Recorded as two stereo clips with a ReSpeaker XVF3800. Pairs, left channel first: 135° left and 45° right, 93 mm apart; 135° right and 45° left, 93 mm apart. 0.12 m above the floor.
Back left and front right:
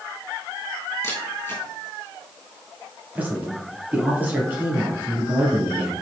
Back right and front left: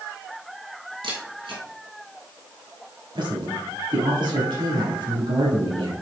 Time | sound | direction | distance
1.0 | a camera shutter | 70° left | 3.5 m
3.1 | a man speaking | 25° left | 3.5 m